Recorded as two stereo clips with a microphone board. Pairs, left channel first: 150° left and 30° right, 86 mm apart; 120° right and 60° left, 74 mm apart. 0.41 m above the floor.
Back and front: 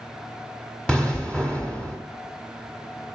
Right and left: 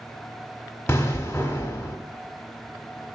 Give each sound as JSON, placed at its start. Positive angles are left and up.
{"t": 0.9, "sound": "an explosion", "azimuth_deg": -135, "distance_m": 1.0}